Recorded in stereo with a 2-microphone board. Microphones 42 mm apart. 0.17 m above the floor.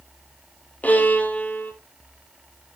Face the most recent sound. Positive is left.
turn(degrees=45)  # may be behind; listen again after turning